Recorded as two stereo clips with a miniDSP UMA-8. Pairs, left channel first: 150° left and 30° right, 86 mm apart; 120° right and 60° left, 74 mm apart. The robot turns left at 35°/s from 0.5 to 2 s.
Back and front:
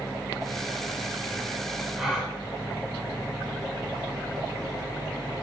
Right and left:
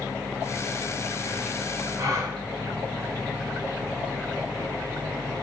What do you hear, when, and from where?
2.0 s a gasp: 55° left, 1.4 m; by 2.3 s 50° left, 1.4 m